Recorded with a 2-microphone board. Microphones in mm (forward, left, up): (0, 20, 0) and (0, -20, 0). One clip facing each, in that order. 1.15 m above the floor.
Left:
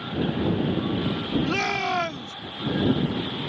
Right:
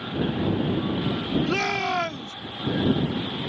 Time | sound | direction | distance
1.5 | a shout | 5° left (ahead or behind) | ?